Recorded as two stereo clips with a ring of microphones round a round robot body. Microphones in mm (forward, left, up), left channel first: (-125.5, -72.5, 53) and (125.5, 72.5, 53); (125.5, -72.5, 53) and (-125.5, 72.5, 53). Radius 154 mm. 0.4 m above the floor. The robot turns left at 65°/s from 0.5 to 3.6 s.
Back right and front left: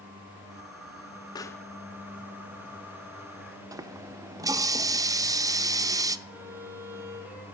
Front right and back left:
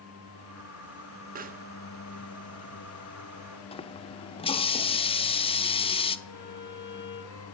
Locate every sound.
1.4 s a pop: 150° left, 1.0 m; by 1.6 s 130° left, 1.0 m
3.7 s a running tap: 20° right, 0.6 m
6.3 s a violin: 70° right, 8 m